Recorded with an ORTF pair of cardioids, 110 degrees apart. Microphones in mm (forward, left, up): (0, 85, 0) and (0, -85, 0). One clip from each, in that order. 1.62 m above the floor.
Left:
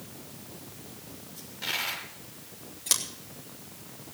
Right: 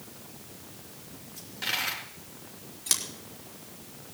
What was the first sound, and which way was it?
A dropped coin, 30° right.